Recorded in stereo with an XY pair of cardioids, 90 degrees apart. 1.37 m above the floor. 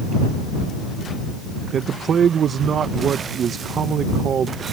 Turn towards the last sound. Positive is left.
turn(degrees=-60)